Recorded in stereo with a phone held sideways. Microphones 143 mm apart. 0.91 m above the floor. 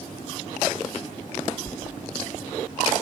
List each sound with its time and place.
1.7 s a sliding door: 15° left (ahead or behind), 0.5 m